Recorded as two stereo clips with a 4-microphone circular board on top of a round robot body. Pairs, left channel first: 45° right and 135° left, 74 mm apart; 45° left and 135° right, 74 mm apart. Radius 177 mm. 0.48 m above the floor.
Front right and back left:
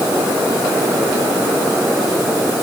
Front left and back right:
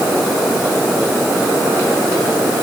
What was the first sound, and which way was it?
Only background noise.